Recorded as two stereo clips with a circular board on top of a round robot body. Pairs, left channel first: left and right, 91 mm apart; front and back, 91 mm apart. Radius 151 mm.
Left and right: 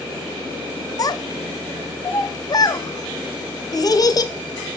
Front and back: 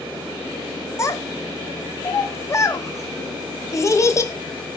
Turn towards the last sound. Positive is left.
turn(degrees=50)